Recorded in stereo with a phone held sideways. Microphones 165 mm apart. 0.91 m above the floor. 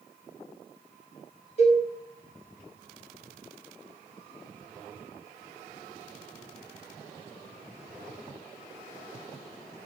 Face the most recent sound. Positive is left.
turn(degrees=40)  # may be behind; listen again after turning